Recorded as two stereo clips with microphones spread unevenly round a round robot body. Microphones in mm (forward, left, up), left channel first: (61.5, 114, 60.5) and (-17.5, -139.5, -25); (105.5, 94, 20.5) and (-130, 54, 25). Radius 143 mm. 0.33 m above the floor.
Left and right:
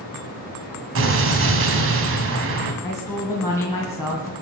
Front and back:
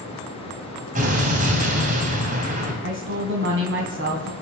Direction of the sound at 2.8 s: 160° left.